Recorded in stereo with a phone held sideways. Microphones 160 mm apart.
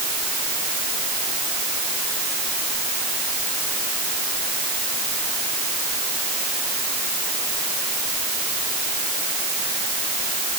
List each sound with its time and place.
Only background noise.